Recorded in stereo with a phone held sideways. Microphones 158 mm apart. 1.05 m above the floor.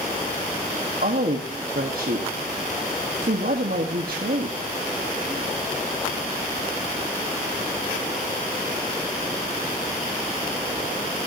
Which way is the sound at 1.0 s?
70° right (ahead or behind).